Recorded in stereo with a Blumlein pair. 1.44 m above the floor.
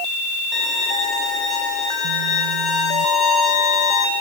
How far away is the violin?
About 7.5 m.